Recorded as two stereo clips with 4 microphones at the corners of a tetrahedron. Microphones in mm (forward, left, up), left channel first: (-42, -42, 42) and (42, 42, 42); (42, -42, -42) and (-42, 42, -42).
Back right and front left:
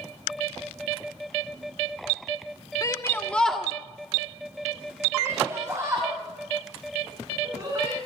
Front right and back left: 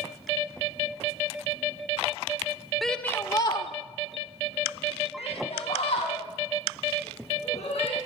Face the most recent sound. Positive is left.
turn(degrees=-20)